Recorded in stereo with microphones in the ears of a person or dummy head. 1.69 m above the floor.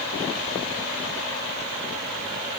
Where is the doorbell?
No doorbell in this recording.